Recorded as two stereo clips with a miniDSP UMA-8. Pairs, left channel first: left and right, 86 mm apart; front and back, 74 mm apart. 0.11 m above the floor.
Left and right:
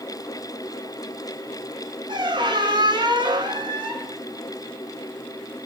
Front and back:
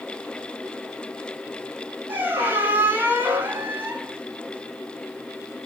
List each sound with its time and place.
2.1 s a squeak: 115° right, 0.6 m